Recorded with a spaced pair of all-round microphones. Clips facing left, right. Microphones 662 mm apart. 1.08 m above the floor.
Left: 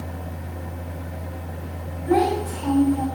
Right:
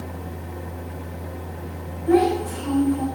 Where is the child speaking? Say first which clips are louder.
Right 3 dB; 25° left (ahead or behind), 6 m.